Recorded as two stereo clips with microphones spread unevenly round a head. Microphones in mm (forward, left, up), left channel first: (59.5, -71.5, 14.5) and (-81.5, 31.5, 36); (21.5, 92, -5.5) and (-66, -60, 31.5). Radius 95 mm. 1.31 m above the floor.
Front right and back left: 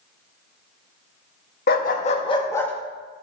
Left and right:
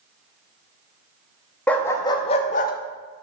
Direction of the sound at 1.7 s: 35° right.